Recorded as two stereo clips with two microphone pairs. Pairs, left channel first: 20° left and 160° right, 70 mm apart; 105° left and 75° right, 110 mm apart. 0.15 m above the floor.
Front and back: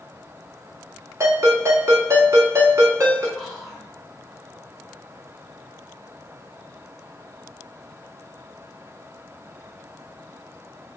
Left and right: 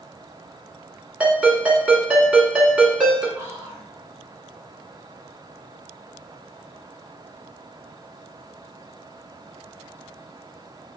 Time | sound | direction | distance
1.2 | a ringtone | 150° right | 1.2 m
3.4 | whispering | 60° right | 1.2 m